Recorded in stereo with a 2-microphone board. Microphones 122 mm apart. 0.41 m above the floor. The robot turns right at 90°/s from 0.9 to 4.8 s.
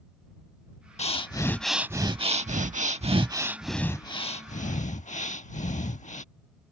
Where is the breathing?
120° left; by 6.2 s 100° left.